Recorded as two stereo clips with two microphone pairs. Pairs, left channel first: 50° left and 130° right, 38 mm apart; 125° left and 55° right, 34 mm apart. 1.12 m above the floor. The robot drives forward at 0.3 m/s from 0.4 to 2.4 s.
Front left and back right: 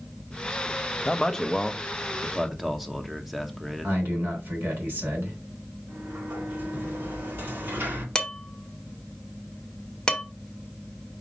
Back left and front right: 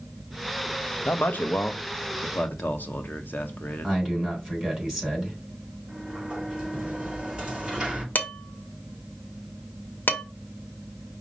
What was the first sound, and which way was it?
A man speaking, 115° left.